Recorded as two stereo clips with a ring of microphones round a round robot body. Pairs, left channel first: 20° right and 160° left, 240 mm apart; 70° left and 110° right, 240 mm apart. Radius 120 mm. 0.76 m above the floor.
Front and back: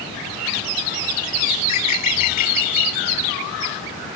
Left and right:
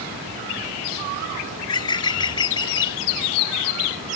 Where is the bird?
5° right.